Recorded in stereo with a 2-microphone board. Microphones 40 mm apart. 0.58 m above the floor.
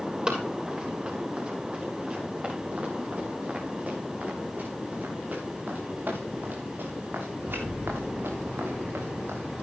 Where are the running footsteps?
20° right (ahead or behind), 10 m; by 9.4 s 75° right (ahead or behind), 7 m.